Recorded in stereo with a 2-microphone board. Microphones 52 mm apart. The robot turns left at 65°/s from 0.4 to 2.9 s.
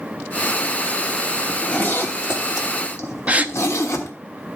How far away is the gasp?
About 0.6 m.